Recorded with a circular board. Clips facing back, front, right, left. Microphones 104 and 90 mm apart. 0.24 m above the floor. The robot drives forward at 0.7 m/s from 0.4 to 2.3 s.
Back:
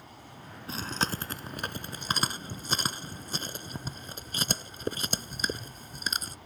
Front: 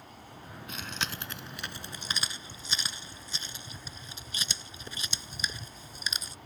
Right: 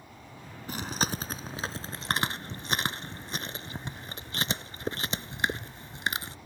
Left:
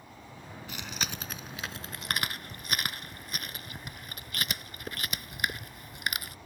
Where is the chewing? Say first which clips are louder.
Back 6 dB, right 7 dB; 130° right; by 6.3 s 150° right.